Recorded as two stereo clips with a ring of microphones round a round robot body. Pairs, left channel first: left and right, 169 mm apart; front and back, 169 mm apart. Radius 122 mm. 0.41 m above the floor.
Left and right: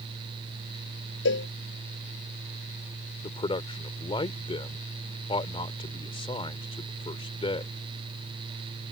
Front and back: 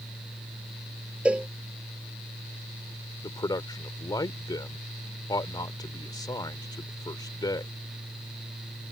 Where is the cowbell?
95° left.